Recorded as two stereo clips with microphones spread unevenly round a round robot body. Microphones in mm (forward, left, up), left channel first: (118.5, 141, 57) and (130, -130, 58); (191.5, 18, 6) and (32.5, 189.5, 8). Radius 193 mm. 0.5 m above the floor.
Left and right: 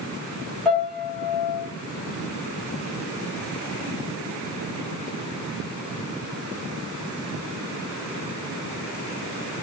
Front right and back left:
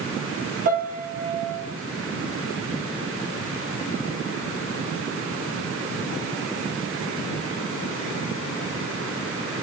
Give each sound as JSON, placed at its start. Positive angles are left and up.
{"t": 0.7, "sound": "a piano", "azimuth_deg": 180, "distance_m": 1.2}